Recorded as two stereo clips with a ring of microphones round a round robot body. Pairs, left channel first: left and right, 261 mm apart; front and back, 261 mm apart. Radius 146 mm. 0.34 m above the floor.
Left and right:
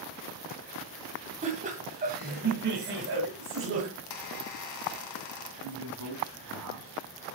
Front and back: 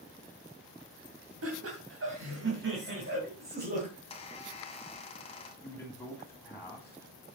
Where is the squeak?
70° left, 1.8 m.